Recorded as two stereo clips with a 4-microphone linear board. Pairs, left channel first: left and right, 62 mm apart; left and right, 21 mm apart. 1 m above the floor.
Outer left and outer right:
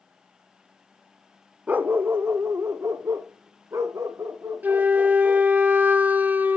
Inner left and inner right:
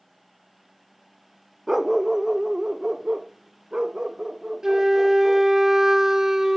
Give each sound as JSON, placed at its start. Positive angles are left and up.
{"t": 1.7, "sound": "a dog barking", "side_deg": -25, "distance_m": 0.6}
{"t": 4.6, "sound": "a flute", "side_deg": -30, "distance_m": 0.7}